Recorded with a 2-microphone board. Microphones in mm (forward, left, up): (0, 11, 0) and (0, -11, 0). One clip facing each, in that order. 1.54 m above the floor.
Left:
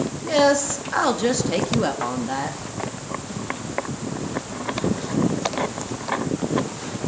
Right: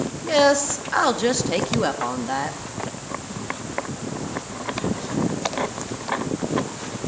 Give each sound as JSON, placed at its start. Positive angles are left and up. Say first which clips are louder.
{"t": 0.2, "sound": "a woman speaking", "louder": "right 1 dB", "side_deg": -15, "distance_m": 3.5}